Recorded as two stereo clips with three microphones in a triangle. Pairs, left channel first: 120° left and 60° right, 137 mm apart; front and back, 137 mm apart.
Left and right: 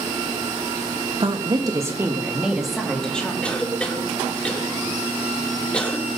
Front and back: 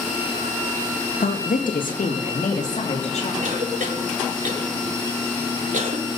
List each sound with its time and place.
1.2 s a woman speaking: 10° right, 2.0 m; by 3.3 s 40° left, 3 m
3.4 s a cough: 160° right, 3.5 m